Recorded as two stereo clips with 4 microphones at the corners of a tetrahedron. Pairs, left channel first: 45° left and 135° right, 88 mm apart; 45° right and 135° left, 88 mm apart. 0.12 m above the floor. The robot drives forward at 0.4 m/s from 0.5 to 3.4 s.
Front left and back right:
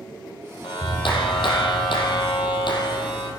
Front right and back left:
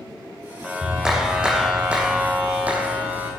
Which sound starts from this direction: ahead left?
A clap, at 0.6 s.